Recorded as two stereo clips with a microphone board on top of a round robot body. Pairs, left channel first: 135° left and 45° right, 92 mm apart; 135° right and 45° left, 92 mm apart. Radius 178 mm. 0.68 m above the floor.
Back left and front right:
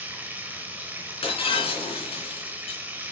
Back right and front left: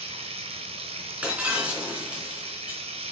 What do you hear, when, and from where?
0.0 s running water: 30° left, 0.8 m
1.2 s breaking glass: 120° left, 3 m